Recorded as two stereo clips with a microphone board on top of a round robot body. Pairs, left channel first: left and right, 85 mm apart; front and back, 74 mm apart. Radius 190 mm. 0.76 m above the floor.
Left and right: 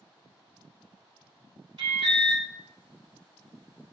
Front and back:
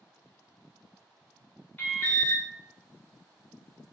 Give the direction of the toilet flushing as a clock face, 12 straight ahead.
I don't hear a toilet flushing.